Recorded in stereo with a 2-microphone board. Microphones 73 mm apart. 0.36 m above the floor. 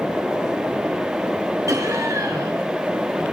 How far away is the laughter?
About 4.5 m.